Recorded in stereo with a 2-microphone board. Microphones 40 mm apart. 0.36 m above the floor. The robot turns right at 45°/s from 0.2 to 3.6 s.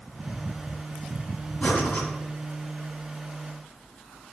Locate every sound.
1.6 s breathing: 30° left (ahead or behind), 1.8 m; by 2.1 s 50° left (ahead or behind), 1.8 m